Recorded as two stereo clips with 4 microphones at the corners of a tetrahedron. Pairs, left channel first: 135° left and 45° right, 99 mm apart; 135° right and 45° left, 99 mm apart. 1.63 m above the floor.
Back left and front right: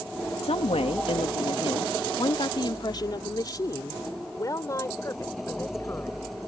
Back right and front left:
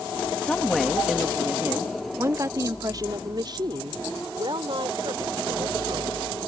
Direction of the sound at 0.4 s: 145° left.